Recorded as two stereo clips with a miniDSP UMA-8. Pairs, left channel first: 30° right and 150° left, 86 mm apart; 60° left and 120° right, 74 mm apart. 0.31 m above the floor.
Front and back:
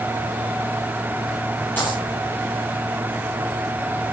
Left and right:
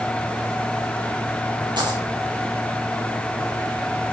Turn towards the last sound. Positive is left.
turn(degrees=-100)